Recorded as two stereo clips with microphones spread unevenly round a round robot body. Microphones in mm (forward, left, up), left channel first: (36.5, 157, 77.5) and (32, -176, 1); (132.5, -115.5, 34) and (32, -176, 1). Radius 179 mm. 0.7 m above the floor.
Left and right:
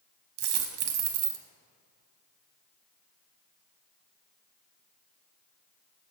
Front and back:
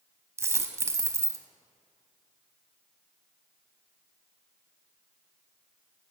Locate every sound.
0.4 s a dropped coin: 70° right, 0.6 m